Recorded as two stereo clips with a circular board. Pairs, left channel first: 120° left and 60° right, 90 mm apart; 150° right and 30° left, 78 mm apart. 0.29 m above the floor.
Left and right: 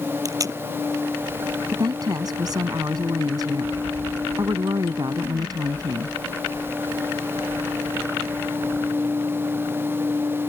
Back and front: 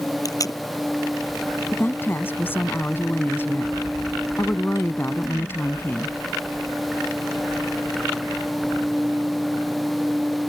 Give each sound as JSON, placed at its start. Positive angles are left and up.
{"t": 0.2, "sound": "tape being pulled", "azimuth_deg": -110}
{"t": 1.7, "sound": "a woman speaking", "azimuth_deg": -90}